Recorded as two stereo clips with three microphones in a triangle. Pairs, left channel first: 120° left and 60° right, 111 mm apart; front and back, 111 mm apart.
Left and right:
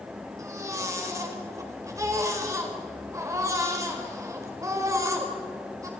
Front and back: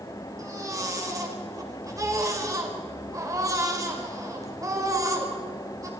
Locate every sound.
0.4 s a baby crying: 120° right, 3.5 m